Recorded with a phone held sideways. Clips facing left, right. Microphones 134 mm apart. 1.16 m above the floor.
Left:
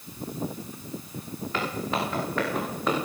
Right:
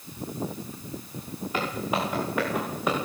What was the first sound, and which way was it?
Footsteps, 15° right (ahead or behind).